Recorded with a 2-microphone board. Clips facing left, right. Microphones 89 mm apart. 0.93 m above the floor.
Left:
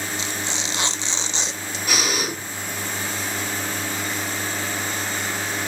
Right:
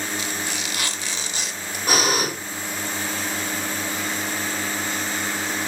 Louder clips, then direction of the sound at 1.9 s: Right 4 dB; 45° right (ahead or behind).